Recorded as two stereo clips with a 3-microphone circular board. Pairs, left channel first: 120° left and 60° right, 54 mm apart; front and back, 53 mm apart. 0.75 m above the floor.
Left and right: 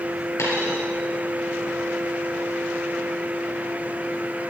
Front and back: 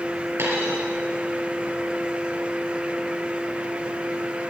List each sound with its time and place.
0.4 s a dropped coin: 140° left, 4.5 m